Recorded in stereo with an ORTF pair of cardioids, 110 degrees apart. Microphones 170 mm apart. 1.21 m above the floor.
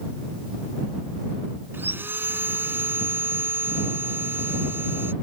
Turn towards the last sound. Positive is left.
turn(degrees=-10)